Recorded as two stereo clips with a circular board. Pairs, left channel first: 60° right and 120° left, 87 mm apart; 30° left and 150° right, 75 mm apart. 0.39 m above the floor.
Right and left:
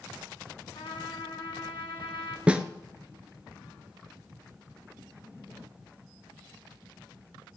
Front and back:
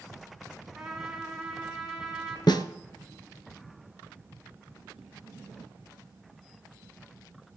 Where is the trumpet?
65° right, 3 m.